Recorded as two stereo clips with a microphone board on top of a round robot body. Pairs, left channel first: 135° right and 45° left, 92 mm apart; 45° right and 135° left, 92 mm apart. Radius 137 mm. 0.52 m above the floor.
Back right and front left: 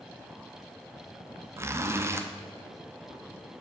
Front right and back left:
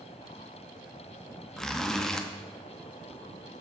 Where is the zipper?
35° left, 1.0 m.